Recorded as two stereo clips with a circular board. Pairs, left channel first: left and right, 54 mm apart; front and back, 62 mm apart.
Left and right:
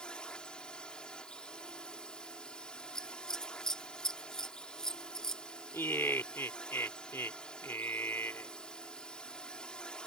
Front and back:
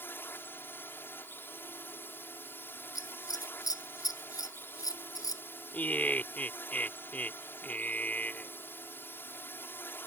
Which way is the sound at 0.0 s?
25° left.